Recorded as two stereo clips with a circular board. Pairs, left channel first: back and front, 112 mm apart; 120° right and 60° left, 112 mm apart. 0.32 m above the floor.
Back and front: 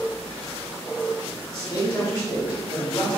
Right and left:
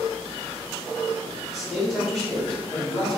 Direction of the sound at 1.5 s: 150° left.